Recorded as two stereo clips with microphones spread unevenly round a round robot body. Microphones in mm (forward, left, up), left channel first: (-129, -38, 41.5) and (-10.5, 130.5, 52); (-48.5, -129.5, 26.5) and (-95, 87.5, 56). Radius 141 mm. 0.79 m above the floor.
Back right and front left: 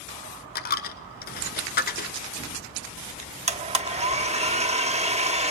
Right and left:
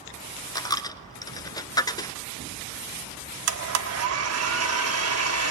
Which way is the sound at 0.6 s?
155° right.